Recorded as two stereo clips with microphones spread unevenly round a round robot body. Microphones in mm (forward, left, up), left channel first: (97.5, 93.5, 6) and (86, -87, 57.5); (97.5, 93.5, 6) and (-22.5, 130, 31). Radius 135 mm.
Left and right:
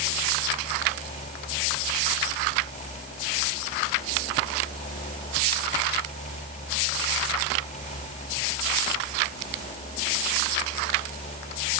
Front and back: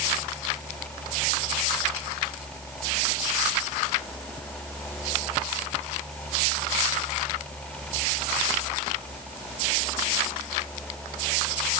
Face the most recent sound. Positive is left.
No sound to turn to.